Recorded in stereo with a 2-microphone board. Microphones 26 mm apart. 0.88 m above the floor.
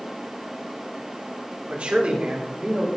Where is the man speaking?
55° right (ahead or behind), 3 m; by 2.9 s 50° right (ahead or behind), 4 m.